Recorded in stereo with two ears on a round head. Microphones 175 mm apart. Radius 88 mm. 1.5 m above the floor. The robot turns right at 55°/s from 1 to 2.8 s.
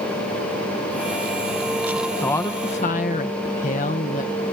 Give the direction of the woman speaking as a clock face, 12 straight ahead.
12 o'clock.